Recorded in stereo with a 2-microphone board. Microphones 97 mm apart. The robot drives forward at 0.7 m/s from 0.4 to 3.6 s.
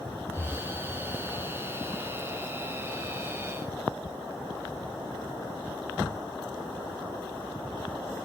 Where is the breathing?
Centre (ahead or behind), 4 m.